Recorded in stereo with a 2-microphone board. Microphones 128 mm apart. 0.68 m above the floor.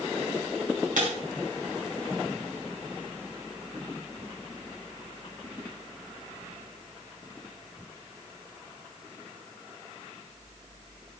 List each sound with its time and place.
1.0 s breaking glass: 85° right, 4 m